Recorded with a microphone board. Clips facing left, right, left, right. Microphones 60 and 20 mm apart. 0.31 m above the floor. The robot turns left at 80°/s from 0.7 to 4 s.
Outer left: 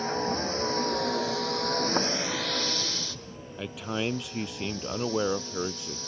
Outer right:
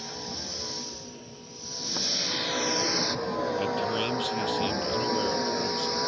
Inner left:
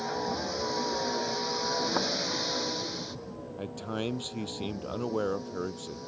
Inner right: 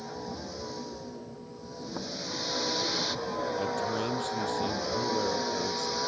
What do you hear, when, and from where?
0.0 s a vehicle: 140° left; by 6.1 s 120° right
3.6 s a man speaking: 170° right; by 6.0 s 155° left